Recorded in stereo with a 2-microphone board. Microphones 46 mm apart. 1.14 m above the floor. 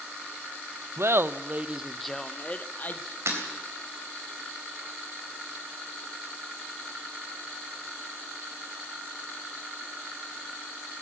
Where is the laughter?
60° right (ahead or behind), 0.8 m; by 3.2 s 40° left (ahead or behind), 1.1 m.